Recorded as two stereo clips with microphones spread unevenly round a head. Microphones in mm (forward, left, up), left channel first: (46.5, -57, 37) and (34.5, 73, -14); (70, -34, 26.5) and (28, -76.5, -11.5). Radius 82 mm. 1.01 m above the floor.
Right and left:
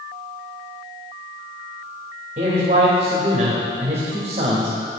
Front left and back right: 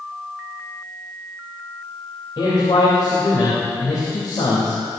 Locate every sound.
2.4 s a man speaking: 55° left, 3.5 m